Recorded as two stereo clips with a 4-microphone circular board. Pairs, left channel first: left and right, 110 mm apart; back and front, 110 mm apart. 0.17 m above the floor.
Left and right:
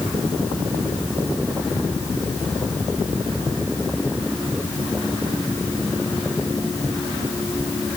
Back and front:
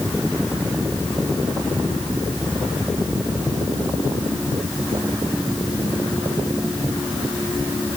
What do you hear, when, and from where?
Only background noise.